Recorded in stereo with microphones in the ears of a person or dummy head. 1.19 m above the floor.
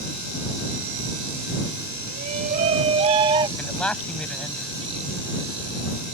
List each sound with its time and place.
2.1 s a shout: 50° right (ahead or behind); by 3.5 s 25° right (ahead or behind)
3.6 s a man speaking: 5° left (ahead or behind)